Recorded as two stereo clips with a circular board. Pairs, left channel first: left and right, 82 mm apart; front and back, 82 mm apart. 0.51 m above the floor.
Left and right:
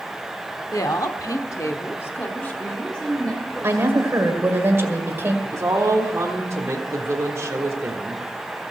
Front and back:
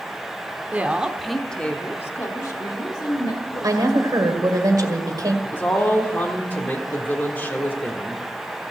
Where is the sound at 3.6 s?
145° right, 1.9 m.